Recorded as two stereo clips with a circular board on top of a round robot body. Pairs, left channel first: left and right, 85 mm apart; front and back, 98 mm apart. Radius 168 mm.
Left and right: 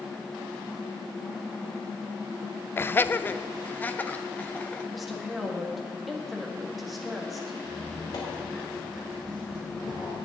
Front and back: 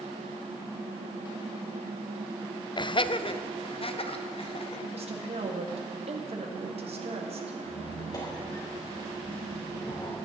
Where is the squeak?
50° left, 3 m.